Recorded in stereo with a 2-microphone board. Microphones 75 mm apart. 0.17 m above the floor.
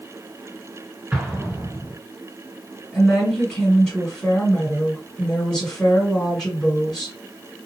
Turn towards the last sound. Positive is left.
turn(degrees=10)  # may be behind; listen again after turning